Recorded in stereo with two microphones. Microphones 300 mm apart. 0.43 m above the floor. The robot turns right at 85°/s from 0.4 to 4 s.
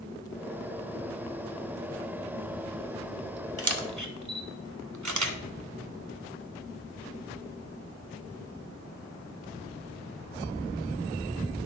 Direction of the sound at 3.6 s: 50° right (ahead or behind).